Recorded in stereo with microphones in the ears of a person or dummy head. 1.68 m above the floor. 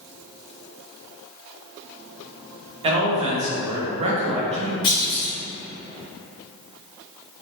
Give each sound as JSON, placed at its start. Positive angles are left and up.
{"t": 2.8, "sound": "a man speaking", "side_deg": -25, "distance_m": 0.6}
{"t": 4.8, "sound": "a clunk", "side_deg": 25, "distance_m": 1.1}